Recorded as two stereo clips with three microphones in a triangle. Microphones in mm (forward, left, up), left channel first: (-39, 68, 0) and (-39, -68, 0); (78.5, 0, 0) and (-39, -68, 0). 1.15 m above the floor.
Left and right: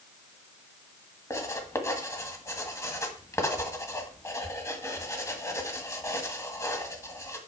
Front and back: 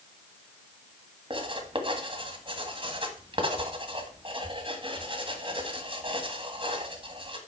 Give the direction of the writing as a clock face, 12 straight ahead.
7 o'clock.